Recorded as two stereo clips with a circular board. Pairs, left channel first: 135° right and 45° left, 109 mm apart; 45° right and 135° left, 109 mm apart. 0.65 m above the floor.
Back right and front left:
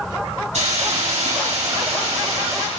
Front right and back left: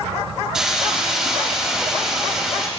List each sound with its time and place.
0.5 s a hiss: 50° left, 3.5 m